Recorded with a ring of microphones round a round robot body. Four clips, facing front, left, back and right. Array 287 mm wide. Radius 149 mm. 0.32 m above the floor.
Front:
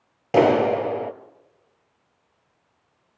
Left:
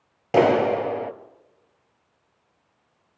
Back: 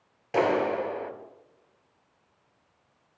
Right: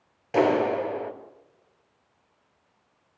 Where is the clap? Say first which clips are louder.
Left 4 dB, front 7 dB; 45° left, 1.4 m.